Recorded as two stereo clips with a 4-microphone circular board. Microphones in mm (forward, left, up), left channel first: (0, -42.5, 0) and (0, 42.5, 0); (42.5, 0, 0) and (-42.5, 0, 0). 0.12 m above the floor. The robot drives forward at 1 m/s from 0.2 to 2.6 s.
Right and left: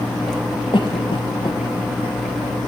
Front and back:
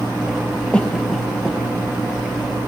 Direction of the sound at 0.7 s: 80° right.